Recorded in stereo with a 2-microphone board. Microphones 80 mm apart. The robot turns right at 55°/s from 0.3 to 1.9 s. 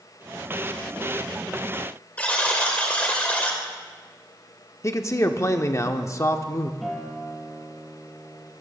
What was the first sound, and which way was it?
A buzzer, 20° left (ahead or behind).